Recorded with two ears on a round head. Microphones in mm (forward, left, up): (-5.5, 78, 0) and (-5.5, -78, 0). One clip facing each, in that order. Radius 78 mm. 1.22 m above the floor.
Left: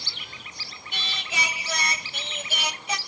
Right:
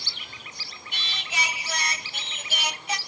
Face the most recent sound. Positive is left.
turn(degrees=75)  # may be behind; listen again after turning